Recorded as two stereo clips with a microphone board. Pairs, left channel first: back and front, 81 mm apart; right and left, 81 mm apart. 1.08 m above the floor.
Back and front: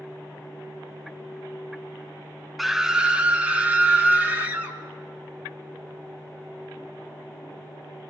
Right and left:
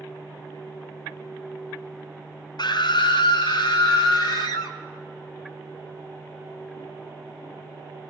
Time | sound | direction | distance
2.6 | a scream | 90° right | 0.5 m